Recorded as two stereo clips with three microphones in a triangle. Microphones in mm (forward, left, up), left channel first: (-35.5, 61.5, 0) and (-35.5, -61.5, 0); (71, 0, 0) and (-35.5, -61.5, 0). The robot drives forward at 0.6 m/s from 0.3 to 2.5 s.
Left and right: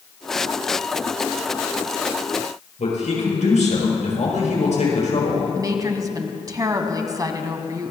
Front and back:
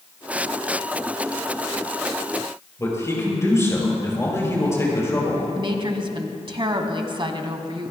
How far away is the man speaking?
About 6.5 m.